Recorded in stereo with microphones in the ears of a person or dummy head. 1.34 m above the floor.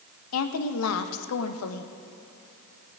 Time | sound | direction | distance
0.3 | a woman speaking | 75° left (ahead or behind) | 1.0 m